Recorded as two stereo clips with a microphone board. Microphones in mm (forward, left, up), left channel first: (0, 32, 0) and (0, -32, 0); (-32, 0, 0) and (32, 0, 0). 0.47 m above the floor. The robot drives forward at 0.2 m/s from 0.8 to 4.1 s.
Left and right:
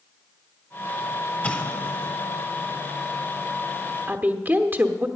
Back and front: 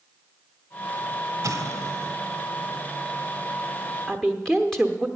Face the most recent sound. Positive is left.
turn(degrees=-105)